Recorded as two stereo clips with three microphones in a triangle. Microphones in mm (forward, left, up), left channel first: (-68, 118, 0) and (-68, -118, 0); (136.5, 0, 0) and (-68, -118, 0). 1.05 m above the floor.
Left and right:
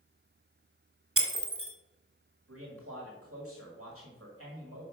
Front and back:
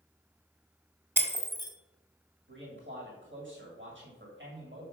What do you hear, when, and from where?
1.2 s breaking glass: 70° right, 1.5 m
2.5 s a man speaking: 110° right, 2.0 m